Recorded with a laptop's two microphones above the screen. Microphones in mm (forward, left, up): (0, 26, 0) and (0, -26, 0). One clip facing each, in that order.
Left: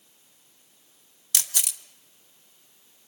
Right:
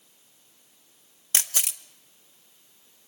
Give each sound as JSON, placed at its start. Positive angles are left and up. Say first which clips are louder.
{"t": 1.3, "sound": "a camera shutter", "louder": "right 2 dB", "side_deg": -30, "distance_m": 0.5}